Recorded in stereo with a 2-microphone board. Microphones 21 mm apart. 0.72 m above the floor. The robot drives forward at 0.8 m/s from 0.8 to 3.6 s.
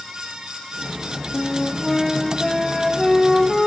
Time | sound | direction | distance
1.3 | a flute | 10° left (ahead or behind) | 0.6 m